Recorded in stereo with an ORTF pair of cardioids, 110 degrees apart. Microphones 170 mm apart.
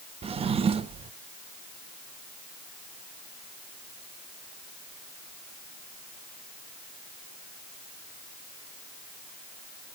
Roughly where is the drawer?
Ahead right.